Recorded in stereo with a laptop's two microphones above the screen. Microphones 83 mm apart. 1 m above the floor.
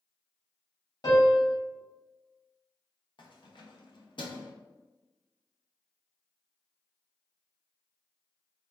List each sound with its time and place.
1.0 s a piano: 55° left (ahead or behind), 1.3 m
3.2 s keys jangling: 70° left (ahead or behind), 0.7 m